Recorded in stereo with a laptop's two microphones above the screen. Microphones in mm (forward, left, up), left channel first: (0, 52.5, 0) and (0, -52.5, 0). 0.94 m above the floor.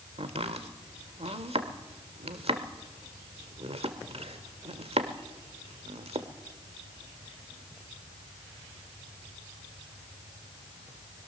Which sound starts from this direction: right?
Chopping, at 0.2 s.